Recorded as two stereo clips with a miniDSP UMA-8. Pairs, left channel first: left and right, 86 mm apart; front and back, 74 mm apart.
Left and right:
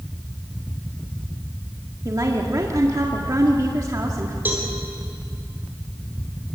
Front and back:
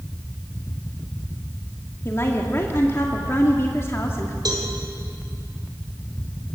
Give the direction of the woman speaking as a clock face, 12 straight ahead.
2 o'clock.